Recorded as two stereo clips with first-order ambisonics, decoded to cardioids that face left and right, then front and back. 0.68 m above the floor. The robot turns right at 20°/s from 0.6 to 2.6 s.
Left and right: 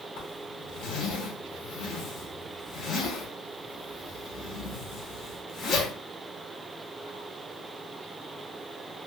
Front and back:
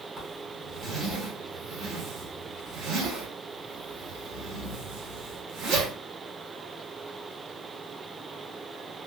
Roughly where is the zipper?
Left.